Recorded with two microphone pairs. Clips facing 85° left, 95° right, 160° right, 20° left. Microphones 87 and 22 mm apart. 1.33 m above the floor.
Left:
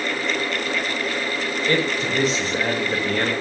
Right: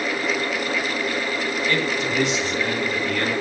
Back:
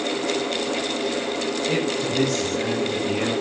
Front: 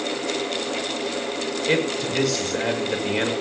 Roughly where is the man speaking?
Ahead left.